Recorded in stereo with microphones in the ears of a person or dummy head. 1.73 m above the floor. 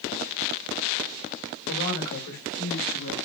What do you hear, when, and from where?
1.7 s a woman speaking: 75° left (ahead or behind), 3 m